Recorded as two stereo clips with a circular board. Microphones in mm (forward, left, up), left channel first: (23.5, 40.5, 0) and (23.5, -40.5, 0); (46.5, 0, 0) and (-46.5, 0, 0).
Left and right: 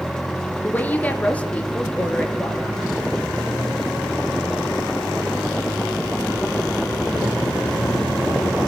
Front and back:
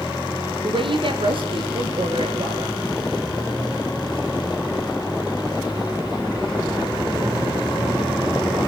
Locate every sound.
0.6 s a woman speaking: 160° left, 3.5 m; by 2.9 s 165° left, 5 m